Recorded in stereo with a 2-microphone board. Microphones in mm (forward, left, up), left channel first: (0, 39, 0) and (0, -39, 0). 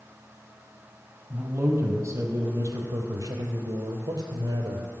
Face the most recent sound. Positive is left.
turn(degrees=-65)  # may be behind; listen again after turning